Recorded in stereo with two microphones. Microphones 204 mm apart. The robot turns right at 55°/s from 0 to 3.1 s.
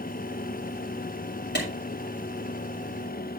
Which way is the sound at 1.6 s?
60° left (ahead or behind).